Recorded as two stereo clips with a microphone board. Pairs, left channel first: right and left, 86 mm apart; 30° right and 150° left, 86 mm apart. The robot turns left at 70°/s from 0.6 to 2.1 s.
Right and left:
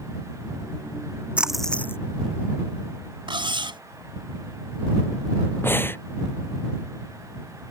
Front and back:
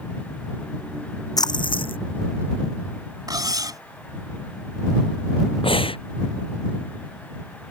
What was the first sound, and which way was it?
A splash, 15° left.